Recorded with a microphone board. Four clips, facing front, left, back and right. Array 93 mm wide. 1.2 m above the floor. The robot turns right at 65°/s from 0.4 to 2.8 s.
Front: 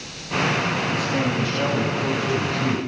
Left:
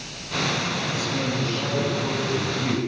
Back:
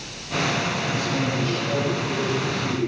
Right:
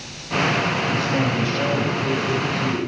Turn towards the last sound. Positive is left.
turn(degrees=30)